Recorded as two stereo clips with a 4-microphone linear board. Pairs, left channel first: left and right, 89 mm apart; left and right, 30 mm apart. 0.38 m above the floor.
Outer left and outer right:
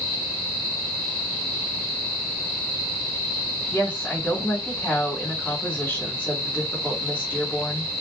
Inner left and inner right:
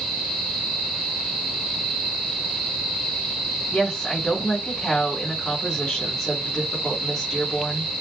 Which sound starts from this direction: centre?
A woman speaking, at 3.7 s.